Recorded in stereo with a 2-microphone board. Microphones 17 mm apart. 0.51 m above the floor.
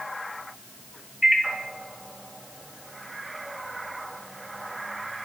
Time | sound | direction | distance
1.2 | a microwave | 20° right (ahead or behind) | 0.6 m